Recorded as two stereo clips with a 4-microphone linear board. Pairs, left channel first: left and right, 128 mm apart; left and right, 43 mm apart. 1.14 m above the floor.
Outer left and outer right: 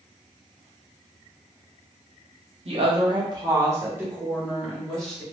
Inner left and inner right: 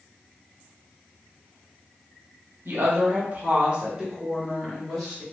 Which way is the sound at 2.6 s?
50° right (ahead or behind).